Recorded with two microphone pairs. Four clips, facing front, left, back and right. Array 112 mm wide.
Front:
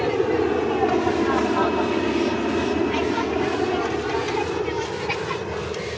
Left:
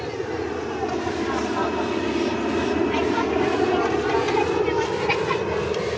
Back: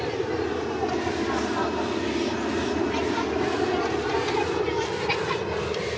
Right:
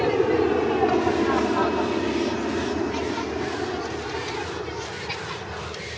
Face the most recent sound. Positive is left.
turn(degrees=95)